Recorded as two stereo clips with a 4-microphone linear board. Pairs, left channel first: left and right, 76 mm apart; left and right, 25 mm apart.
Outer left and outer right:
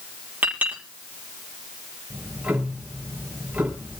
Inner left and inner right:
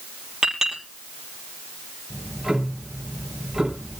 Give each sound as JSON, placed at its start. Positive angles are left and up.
{"t": 0.4, "sound": "a clink", "side_deg": -20, "distance_m": 5.5}
{"t": 2.1, "sound": "ticking", "side_deg": -15, "distance_m": 5.5}